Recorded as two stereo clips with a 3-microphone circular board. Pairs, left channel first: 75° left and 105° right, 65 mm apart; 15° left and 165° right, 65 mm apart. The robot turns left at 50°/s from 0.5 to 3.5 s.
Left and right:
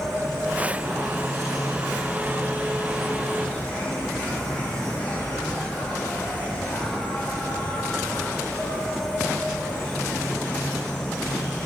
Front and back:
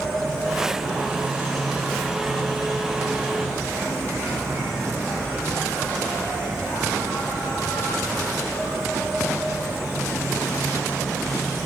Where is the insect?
70° right, 1.2 m; by 11.7 s 140° left, 1.2 m.